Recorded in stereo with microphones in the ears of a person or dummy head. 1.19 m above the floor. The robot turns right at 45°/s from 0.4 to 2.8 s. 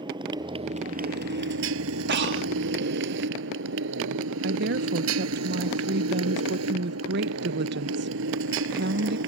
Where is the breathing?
55° right (ahead or behind); by 2.5 s 70° right (ahead or behind).